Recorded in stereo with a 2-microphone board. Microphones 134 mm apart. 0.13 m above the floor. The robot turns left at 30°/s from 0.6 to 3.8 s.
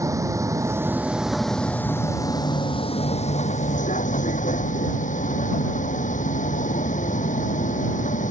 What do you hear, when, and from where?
0.0 s a vehicle: 155° right; by 8.3 s 110° left